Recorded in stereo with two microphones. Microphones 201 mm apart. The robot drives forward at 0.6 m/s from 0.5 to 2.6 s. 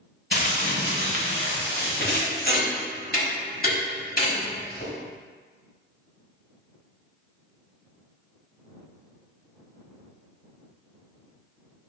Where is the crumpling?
65° left (ahead or behind), 1.0 m; by 2.3 s 55° left (ahead or behind), 1.1 m.